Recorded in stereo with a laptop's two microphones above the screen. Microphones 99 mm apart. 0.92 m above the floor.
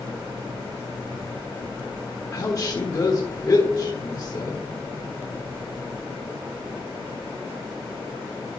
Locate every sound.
2.3 s a woman speaking: 40° left (ahead or behind), 1.3 m